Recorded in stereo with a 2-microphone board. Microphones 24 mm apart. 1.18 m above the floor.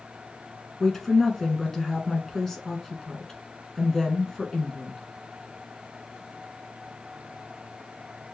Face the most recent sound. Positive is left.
turn(degrees=10)  # may be behind; listen again after turning